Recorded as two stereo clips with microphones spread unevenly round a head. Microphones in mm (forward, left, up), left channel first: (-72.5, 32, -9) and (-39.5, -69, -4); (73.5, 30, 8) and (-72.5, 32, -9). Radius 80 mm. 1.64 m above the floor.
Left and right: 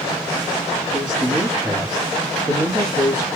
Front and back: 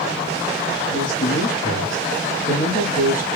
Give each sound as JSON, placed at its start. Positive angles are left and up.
{"t": 0.9, "sound": "a man speaking", "azimuth_deg": -10, "distance_m": 1.4}